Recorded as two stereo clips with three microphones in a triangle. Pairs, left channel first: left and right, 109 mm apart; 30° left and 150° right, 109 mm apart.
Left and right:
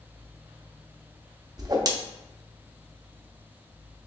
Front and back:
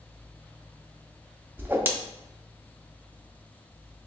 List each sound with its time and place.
1.6 s a whoosh: 95° right, 0.6 m